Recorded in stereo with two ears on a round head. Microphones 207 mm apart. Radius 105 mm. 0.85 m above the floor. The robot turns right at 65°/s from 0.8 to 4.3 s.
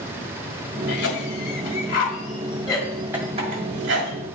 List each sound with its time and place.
0.9 s a cough: 40° left (ahead or behind), 1.9 m; by 4.1 s 65° right (ahead or behind), 1.9 m